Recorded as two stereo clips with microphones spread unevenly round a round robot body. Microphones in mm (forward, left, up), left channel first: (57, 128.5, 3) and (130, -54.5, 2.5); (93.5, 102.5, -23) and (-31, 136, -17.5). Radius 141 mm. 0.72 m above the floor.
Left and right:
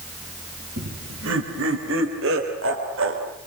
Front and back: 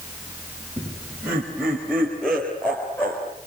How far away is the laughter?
About 4.5 m.